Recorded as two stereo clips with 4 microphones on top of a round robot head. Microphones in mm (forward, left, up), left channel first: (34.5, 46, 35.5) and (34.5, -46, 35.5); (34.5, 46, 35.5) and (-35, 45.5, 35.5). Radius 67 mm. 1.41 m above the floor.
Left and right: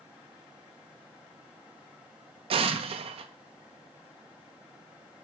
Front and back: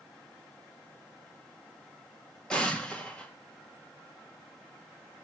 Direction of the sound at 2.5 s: 80° right.